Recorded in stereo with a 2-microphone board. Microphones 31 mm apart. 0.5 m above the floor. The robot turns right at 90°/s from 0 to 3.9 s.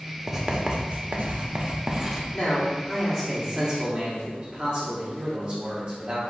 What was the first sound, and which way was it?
Writing, 175° right.